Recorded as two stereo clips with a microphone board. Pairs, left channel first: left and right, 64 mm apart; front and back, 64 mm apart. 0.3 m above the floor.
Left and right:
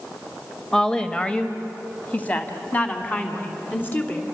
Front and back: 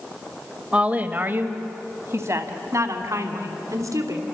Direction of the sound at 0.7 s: 155° left.